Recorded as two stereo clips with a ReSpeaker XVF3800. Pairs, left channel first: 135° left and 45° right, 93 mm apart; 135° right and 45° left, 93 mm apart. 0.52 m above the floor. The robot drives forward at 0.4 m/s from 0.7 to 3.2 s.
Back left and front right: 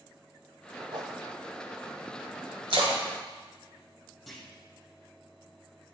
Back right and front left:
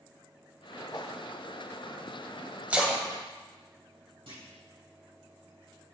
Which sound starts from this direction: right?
A whoosh, at 0.9 s.